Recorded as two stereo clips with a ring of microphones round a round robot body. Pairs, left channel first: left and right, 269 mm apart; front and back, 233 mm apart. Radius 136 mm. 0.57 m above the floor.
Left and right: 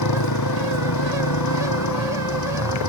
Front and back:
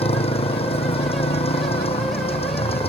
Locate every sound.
0.0 s a motorcycle: 65° left